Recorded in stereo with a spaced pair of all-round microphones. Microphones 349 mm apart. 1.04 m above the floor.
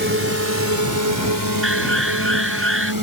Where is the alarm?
40° right (ahead or behind).